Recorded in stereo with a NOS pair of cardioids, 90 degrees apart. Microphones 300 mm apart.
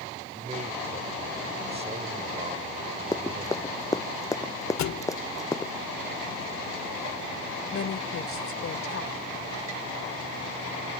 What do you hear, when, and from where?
0.3 s a man speaking: 20° right
3.1 s running footsteps: 10° left
4.8 s a thud: 70° left
7.7 s a woman speaking: 50° left